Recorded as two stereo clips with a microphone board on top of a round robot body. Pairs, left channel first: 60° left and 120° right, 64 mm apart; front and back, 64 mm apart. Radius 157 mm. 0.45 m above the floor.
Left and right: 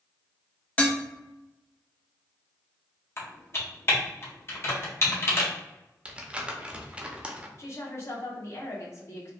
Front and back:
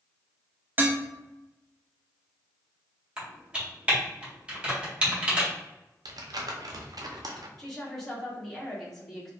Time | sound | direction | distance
0.8 | dishes clattering | 125° left | 0.9 m
3.2 | typing on a keyboard | 110° left | 1.5 m
6.0 | crumpling | 165° left | 0.7 m
7.6 | a woman speaking | 80° left | 1.8 m